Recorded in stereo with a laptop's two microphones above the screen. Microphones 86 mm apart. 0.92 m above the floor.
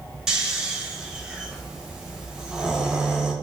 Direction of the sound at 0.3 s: 5° right (ahead or behind).